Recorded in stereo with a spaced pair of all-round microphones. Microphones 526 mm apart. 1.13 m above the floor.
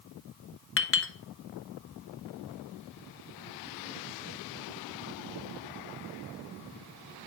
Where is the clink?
25° left (ahead or behind), 0.6 m.